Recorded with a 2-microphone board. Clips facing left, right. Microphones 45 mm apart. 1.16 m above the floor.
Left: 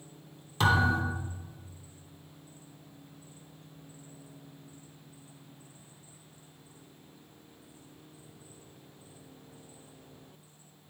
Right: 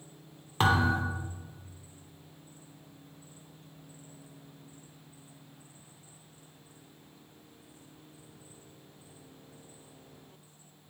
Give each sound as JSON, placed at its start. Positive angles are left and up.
{"t": 0.6, "sound": "a thud", "side_deg": -35, "distance_m": 1.7}